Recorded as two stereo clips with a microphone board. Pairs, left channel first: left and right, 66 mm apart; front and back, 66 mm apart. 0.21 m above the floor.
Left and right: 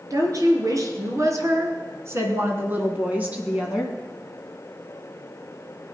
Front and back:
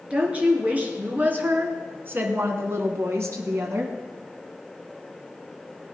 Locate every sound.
0.1 s a woman speaking: 110° right, 3.5 m; by 3.9 s 165° right, 2 m